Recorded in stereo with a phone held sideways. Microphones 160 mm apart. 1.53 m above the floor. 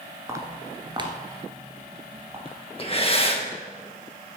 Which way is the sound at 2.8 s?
35° left (ahead or behind).